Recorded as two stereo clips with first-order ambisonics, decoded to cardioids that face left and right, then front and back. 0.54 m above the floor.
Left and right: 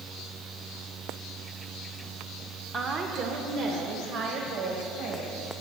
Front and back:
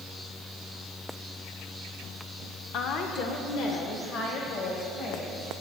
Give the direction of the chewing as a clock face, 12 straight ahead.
I don't hear chewing.